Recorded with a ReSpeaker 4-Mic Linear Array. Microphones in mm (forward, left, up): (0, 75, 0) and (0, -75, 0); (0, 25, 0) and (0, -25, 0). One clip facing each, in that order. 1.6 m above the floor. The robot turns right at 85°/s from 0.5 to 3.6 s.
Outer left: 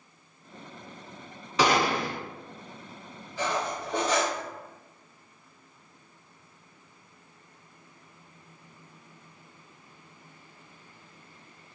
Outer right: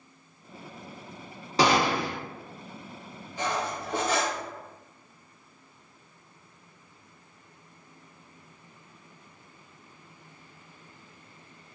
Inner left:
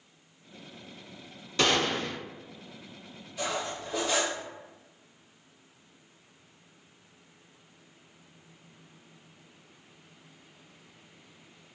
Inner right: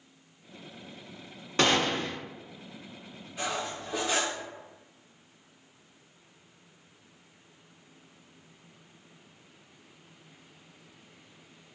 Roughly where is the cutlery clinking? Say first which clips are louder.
Outer left 1 dB, inner left 1 dB; centre.